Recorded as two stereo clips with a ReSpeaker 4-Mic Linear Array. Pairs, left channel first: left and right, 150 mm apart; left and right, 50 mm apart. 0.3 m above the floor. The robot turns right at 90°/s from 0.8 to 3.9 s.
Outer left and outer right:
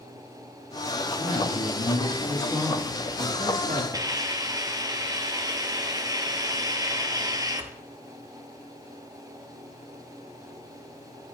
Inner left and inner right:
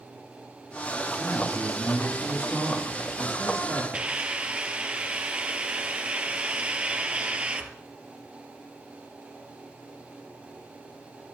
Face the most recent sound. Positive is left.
turn(degrees=-25)  # may be behind; listen again after turning